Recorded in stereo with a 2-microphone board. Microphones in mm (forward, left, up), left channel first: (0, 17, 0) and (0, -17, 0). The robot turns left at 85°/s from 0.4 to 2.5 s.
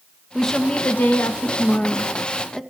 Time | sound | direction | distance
0.3 | a woman speaking | straight behind | 1.6 m